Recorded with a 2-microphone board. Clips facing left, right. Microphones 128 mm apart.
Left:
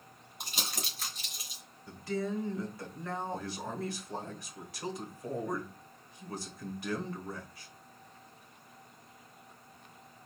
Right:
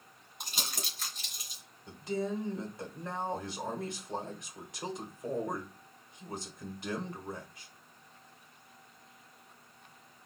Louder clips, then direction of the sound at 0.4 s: Left 1 dB; centre (ahead or behind).